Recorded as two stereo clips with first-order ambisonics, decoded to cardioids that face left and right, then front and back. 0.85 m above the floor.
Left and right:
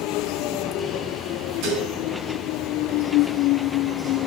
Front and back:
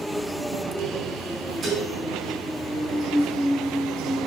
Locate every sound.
1.6 s dishes clattering: 115° right, 6 m